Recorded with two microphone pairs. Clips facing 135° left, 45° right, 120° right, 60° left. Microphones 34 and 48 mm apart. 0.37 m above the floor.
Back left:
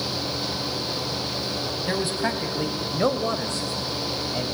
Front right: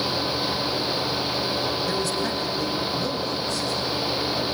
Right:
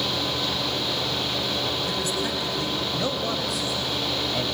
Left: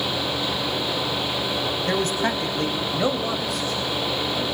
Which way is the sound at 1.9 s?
85° left.